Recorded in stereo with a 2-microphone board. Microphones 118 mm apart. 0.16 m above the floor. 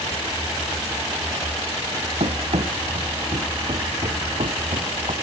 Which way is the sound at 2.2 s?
65° right (ahead or behind).